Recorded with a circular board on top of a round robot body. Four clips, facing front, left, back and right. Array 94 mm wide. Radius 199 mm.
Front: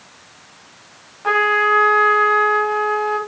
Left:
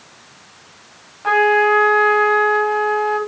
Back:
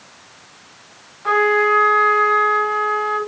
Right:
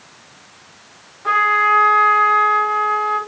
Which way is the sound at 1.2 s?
50° left.